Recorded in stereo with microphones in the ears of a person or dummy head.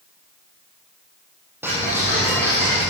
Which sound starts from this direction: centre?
Ticking, at 1.6 s.